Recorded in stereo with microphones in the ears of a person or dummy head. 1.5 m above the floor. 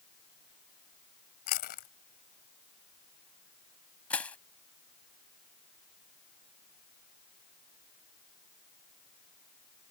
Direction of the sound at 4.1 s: 10° left (ahead or behind).